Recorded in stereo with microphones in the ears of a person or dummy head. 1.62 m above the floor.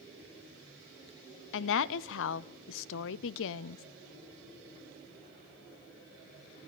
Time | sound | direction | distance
1.5 | a woman speaking | 75° left (ahead or behind) | 0.5 m